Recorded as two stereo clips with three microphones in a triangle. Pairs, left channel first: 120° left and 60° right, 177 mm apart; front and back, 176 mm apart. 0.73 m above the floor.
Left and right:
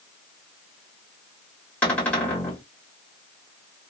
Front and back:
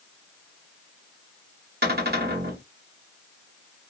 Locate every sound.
1.8 s a cupboard door: 160° right, 1.8 m